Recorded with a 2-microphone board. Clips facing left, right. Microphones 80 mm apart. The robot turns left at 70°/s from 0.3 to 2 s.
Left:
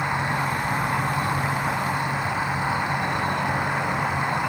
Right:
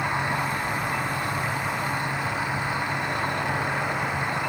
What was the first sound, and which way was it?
An insect, 165° left.